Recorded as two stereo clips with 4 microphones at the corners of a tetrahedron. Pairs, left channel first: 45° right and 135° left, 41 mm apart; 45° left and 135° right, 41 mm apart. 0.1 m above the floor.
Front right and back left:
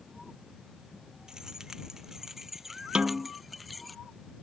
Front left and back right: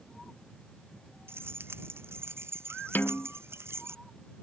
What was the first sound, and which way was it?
Keys jangling, 155° right.